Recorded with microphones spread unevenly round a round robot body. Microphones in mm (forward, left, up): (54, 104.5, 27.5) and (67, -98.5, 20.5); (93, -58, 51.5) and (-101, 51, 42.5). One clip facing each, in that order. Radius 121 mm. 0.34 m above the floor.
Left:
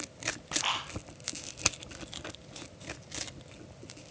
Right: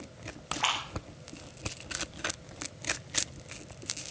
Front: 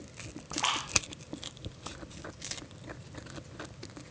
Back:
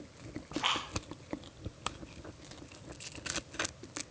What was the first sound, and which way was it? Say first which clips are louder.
A splash: right 4 dB, even; 65° right.